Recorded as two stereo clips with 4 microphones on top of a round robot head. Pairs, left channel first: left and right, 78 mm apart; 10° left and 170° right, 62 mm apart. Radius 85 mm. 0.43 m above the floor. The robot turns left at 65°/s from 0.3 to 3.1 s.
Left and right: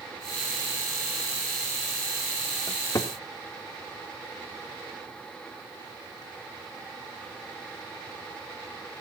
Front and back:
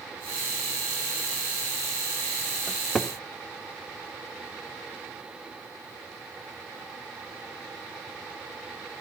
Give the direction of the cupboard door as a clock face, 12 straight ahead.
8 o'clock.